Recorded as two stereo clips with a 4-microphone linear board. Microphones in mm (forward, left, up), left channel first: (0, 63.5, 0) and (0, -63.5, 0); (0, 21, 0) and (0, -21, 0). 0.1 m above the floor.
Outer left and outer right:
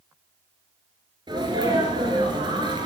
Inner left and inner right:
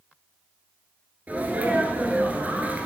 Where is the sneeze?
35° right (ahead or behind), 1.4 m.